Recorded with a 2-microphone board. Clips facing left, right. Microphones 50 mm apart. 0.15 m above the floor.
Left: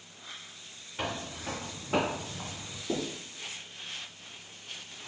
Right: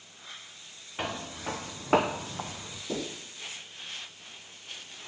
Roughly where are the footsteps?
Right.